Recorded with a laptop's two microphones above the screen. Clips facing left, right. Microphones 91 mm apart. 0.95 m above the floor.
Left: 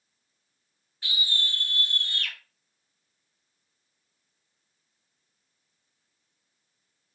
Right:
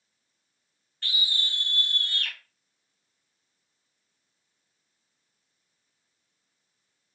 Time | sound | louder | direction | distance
1.0 | a scream | left 1 dB | 10° left (ahead or behind) | 0.5 m